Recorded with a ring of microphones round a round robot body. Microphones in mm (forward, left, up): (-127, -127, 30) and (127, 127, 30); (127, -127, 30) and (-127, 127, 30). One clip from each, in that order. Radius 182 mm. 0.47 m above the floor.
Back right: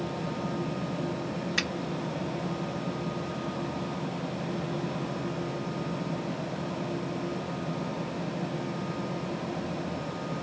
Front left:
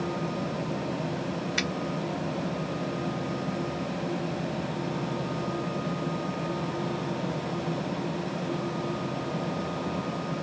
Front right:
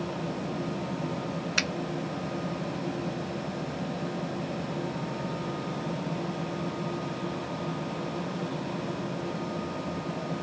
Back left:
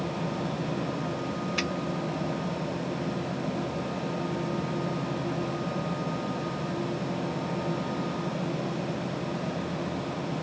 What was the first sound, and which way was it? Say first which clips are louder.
A finger snap: even, front right 4 dB; 60° right.